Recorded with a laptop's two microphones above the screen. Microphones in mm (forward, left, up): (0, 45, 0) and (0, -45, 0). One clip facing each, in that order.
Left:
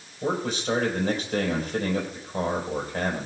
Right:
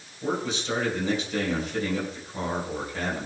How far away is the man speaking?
About 4.5 m.